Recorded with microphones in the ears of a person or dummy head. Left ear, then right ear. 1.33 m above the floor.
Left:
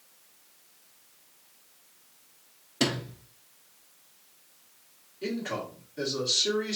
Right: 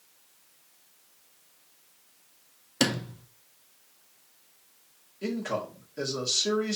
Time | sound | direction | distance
2.8 | a sliding door | 35° right (ahead or behind) | 0.6 m
5.2 | a man speaking | 75° right (ahead or behind) | 2 m